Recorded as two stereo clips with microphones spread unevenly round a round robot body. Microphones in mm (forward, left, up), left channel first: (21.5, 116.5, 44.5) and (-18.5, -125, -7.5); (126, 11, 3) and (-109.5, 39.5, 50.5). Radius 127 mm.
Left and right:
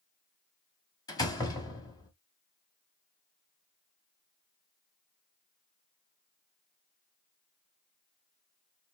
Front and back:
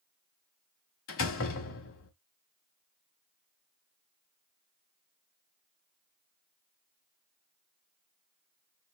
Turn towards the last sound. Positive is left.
turn(degrees=0)